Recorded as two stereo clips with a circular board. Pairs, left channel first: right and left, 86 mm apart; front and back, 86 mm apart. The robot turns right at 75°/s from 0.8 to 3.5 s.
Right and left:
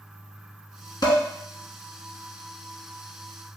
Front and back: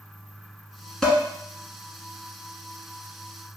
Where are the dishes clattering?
80° right, 1.4 m; by 1.2 s 65° right, 1.4 m.